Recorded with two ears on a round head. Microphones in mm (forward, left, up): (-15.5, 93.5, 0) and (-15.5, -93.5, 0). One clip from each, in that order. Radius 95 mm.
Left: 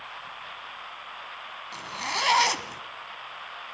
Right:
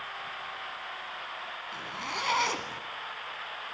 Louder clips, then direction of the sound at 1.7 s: Left 6 dB; 40° left (ahead or behind).